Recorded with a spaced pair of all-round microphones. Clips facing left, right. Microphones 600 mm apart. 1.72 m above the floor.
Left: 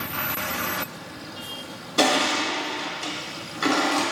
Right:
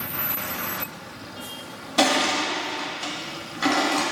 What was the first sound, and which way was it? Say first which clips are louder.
Crushing: even; 15° right (ahead or behind).